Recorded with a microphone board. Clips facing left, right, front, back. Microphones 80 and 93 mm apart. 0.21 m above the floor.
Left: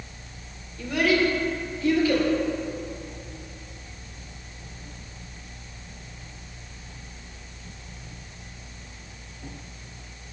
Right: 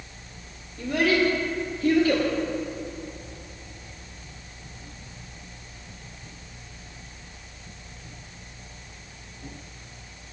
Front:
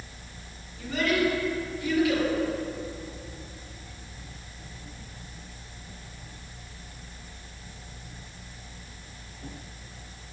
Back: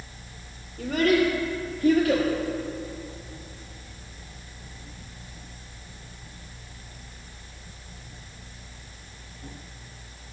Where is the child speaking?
150° right, 3 m; by 2.3 s 125° right, 2 m.